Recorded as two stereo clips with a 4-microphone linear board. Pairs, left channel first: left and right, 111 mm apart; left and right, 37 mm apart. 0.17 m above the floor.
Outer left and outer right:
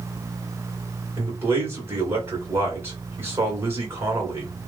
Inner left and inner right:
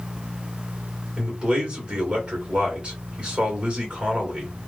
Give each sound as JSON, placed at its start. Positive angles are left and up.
{"t": 1.2, "sound": "a man speaking", "side_deg": -20, "distance_m": 2.5}